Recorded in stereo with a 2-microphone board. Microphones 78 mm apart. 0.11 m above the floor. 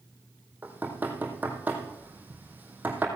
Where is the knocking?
20° right (ahead or behind), 3 m.